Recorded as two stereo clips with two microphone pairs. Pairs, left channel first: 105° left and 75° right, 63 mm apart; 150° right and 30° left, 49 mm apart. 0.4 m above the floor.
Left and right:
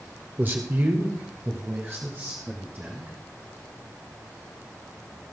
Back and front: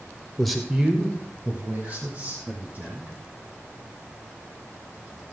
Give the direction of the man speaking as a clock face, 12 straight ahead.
3 o'clock.